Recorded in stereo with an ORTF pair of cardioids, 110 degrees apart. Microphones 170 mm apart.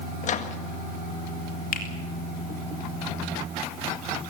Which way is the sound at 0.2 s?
50° left.